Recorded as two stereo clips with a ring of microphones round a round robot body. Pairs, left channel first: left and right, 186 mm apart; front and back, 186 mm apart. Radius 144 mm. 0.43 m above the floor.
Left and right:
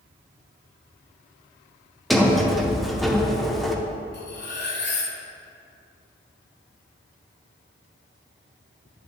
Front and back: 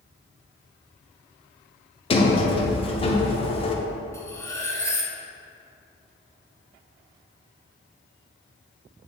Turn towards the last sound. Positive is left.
turn(degrees=75)